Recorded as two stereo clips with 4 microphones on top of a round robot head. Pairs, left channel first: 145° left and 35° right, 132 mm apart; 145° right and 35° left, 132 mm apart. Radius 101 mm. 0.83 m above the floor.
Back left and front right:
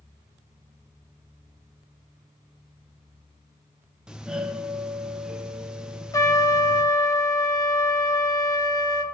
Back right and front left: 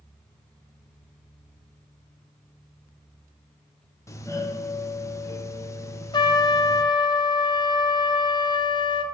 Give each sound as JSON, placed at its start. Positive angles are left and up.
{"t": 4.1, "sound": "a doorbell", "azimuth_deg": -115, "distance_m": 1.0}
{"t": 6.1, "sound": "a trumpet", "azimuth_deg": -170, "distance_m": 1.2}